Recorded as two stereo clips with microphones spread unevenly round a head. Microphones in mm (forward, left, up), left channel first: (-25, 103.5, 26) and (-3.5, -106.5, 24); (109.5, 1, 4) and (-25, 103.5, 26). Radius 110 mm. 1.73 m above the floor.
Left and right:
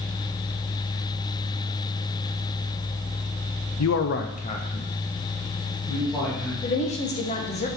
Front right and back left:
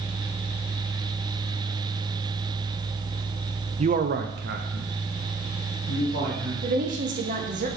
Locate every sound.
3.8 s a man speaking: 100° left, 0.5 m; by 6.5 s 175° right, 2 m
6.6 s a woman speaking: 145° left, 0.9 m